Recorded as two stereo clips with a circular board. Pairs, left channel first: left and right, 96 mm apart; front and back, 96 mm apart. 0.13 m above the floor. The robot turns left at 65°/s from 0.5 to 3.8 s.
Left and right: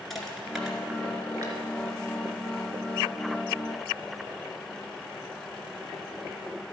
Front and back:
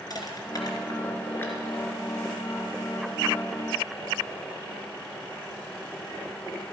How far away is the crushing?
About 2.5 m.